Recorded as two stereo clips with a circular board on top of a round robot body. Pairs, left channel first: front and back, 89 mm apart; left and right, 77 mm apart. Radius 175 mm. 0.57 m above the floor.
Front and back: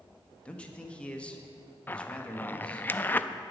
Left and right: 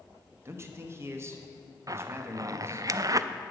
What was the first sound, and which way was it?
A man speaking, 70° right.